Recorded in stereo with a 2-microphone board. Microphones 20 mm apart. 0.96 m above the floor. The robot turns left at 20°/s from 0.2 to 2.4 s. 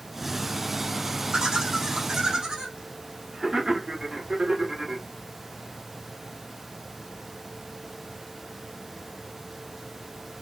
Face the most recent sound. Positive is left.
turn(degrees=-35)  # may be behind; listen again after turning